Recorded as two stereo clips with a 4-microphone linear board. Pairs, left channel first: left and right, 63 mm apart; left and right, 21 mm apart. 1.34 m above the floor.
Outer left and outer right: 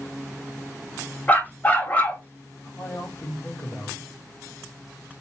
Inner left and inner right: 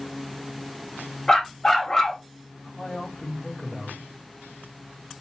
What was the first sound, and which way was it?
A dog barking, 25° left (ahead or behind).